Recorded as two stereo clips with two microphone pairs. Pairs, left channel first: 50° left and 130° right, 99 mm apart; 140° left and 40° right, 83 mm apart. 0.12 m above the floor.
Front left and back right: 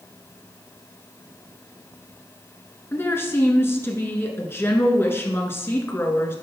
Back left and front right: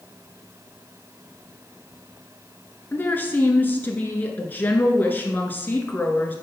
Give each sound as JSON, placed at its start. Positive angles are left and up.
{"t": 2.9, "sound": "a woman speaking", "azimuth_deg": 95, "distance_m": 1.2}